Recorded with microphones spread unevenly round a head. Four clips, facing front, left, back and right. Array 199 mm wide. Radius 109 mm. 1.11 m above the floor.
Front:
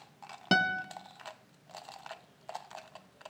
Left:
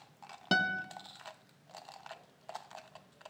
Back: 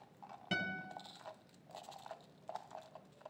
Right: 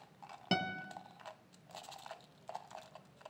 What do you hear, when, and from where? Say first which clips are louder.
0.5 s a guitar: left 5 dB, front 12 dB; 10° left, 0.9 m